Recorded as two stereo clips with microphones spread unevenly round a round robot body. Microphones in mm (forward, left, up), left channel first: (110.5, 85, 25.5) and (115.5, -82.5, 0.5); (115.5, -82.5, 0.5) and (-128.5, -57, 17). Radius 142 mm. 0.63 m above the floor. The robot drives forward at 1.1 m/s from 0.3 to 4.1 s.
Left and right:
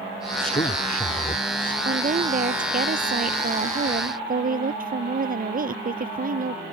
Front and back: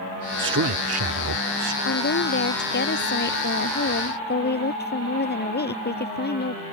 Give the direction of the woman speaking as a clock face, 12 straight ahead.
2 o'clock.